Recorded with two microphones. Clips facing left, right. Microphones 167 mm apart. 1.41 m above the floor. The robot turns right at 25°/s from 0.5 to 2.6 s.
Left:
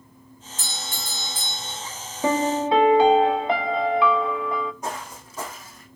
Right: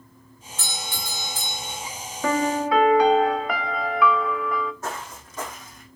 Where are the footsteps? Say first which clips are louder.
Left 1 dB; 15° left (ahead or behind), 4.5 m; by 5.9 s centre (ahead or behind), 3.5 m.